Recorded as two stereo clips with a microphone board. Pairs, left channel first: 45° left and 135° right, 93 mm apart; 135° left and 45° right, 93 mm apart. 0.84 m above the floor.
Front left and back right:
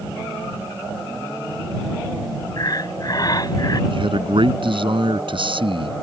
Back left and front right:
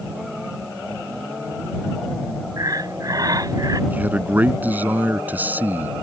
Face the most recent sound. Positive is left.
turn(degrees=-115)